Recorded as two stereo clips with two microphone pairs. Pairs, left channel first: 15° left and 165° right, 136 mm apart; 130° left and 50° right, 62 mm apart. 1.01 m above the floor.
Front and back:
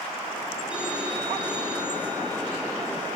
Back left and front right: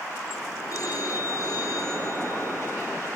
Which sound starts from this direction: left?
A phone ringing, at 0.7 s.